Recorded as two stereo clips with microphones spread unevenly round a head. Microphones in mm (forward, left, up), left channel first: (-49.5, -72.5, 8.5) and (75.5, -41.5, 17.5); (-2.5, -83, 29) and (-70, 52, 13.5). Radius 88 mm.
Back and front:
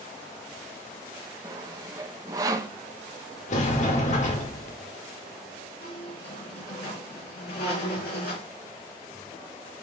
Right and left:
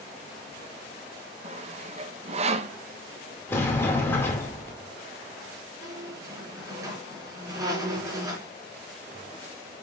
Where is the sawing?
80° left, 0.7 m.